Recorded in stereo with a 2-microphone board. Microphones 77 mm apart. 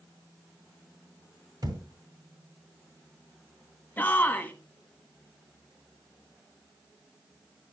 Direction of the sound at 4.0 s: 20° left (ahead or behind).